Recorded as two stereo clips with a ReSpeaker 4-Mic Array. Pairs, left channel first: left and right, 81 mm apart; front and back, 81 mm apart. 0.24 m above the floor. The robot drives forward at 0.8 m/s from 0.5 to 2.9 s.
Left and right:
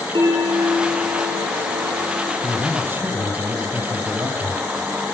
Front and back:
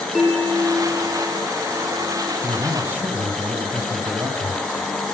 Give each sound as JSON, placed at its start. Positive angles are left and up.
{"t": 0.1, "sound": "a bell", "azimuth_deg": -90, "distance_m": 4.5}
{"t": 2.4, "sound": "a man speaking", "azimuth_deg": -120, "distance_m": 1.7}